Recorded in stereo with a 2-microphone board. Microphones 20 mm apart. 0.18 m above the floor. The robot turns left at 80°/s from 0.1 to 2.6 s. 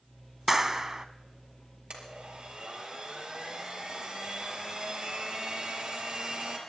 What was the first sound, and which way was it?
A clap, 40° right.